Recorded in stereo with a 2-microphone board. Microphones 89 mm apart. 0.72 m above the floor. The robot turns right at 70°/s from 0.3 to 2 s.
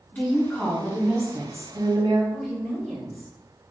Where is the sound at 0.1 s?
155° left, 1.2 m; by 2.2 s 85° right, 1.2 m.